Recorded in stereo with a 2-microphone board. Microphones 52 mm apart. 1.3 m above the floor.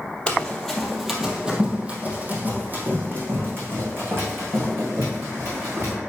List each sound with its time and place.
0.3 s running footsteps: 20° left (ahead or behind), 1.4 m; by 6.0 s 55° right (ahead or behind), 5 m